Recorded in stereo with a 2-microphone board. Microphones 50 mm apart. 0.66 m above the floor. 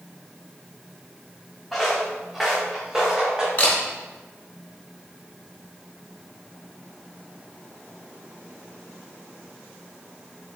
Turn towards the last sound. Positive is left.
turn(degrees=30)  # may be behind; listen again after turning